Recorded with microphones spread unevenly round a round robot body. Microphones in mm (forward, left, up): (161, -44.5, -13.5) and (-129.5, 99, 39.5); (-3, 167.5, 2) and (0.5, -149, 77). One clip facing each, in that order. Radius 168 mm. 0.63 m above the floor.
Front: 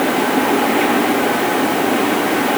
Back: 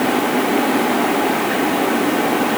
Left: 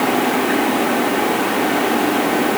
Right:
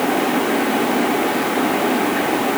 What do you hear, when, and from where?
Only background noise.